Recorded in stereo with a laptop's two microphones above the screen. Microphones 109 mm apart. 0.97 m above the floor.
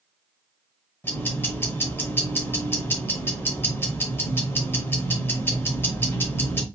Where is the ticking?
20° left (ahead or behind), 0.9 m.